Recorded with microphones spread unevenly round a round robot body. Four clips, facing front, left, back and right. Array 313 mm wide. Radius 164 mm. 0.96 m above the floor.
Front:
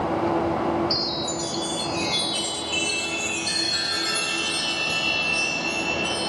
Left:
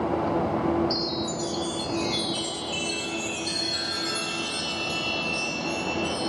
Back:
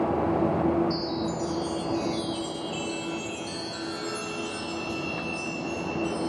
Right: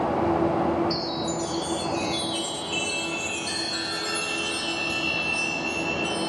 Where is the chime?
10° right, 4 m.